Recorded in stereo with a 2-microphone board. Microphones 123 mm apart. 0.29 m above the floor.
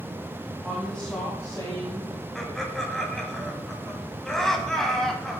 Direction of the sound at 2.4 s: 5° left (ahead or behind).